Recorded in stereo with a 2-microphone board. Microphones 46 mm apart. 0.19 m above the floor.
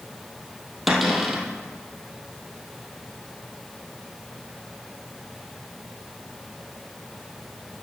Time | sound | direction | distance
0.9 | a cupboard door | centre (ahead or behind) | 2 m